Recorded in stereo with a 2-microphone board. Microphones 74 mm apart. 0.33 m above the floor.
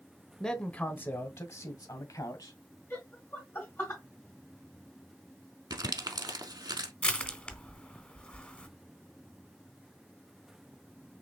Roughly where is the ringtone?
I don't hear a ringtone.